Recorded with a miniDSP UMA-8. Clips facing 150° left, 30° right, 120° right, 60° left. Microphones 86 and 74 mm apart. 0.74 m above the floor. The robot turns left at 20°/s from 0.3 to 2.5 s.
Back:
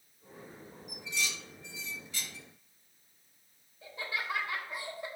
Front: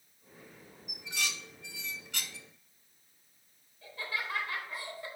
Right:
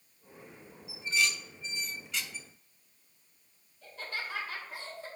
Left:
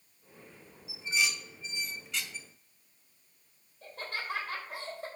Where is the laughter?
85° left, 4 m.